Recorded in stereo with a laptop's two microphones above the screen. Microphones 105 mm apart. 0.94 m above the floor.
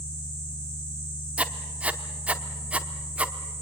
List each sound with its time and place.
0.0 s a fan: 45° left (ahead or behind), 1.2 m
1.4 s writing: 10° right (ahead or behind), 0.9 m